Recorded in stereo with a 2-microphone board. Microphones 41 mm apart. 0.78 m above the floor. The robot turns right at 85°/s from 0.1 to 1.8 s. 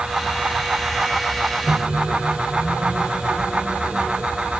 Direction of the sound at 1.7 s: 25° right (ahead or behind).